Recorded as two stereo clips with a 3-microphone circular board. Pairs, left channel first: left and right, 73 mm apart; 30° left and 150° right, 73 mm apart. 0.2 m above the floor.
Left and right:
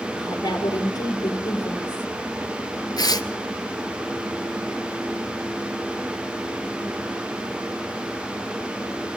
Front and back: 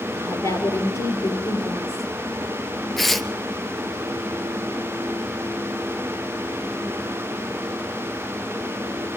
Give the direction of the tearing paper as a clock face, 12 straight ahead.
8 o'clock.